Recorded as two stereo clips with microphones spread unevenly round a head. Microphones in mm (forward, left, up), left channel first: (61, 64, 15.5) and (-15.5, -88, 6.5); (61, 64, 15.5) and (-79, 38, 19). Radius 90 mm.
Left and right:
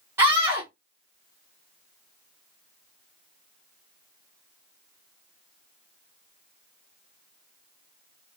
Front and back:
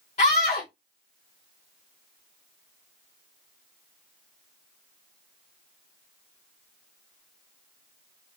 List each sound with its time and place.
0.2 s a scream: 40° right, 0.7 m